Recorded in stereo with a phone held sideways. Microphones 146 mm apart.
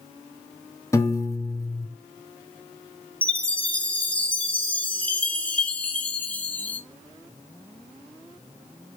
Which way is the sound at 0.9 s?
20° left (ahead or behind).